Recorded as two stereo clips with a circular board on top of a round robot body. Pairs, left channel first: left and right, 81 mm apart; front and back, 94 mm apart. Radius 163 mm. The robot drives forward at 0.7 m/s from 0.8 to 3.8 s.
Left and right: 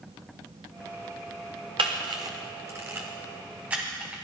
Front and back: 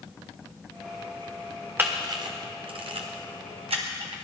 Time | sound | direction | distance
1.8 | a camera shutter | 110° right | 0.5 m